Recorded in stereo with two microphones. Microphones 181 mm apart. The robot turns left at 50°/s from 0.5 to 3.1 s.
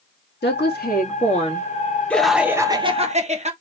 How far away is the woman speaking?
About 2 m.